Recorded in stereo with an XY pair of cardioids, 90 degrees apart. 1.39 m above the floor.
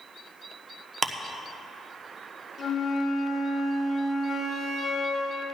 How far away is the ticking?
About 0.9 m.